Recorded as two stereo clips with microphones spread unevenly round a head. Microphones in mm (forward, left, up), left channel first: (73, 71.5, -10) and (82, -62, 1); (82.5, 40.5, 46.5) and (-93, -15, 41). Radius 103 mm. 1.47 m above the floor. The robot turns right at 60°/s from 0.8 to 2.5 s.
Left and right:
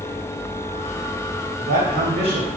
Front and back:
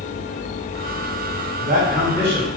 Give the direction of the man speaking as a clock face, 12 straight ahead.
4 o'clock.